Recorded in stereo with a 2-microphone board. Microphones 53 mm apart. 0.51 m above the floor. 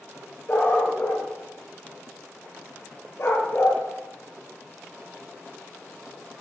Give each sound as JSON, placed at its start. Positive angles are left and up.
{"t": 0.5, "sound": "a dog barking", "side_deg": 55, "distance_m": 4.5}